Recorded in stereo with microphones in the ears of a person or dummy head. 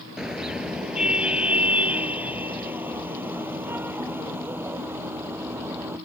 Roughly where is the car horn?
Centre.